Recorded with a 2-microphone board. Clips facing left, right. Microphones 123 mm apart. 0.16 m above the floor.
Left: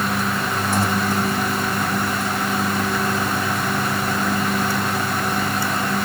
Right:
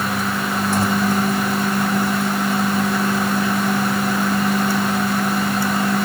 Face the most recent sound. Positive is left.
No sound to turn to.